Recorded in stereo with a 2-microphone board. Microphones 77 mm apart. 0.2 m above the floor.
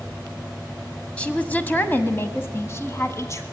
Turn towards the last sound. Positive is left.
turn(degrees=40)  # may be behind; listen again after turning